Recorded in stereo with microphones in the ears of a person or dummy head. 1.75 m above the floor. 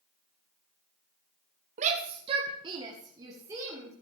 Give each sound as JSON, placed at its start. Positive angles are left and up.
{"t": 1.8, "sound": "a shout", "side_deg": -40, "distance_m": 0.7}